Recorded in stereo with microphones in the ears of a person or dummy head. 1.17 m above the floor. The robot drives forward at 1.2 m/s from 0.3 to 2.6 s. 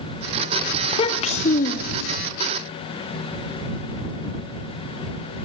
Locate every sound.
0.8 s a child speaking: 25° left (ahead or behind), 2 m; by 2.2 s 65° left (ahead or behind), 1.0 m